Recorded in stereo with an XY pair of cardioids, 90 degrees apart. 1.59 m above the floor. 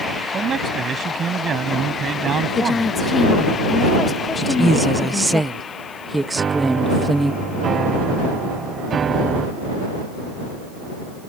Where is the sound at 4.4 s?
15° right.